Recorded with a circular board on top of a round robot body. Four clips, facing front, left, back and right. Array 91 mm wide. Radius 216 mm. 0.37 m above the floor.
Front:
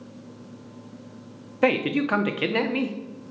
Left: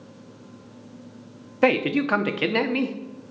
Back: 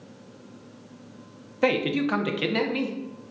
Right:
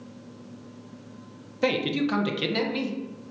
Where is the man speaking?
70° left, 1.0 m.